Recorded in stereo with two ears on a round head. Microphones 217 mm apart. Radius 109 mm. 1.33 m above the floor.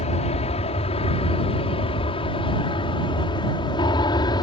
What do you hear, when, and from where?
0.0 s an aircraft: 30° left (ahead or behind); by 4.4 s 20° left (ahead or behind)